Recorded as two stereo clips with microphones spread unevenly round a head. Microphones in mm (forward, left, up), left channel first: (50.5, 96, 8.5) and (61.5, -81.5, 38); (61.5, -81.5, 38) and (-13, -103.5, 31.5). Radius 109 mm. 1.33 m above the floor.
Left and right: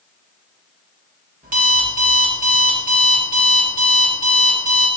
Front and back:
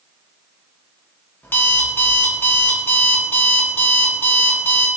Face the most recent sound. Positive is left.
turn(degrees=-45)